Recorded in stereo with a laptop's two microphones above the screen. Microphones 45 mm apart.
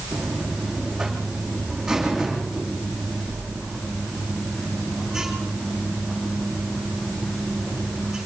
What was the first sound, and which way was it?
A buzzer, 5° right (ahead or behind).